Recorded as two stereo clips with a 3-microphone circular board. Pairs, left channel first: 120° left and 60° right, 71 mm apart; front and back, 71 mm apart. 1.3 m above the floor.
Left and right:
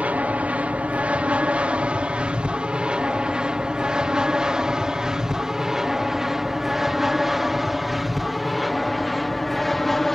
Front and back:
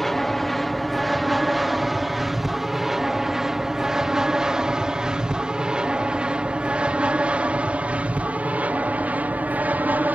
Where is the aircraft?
85° right; by 10.2 s 155° right.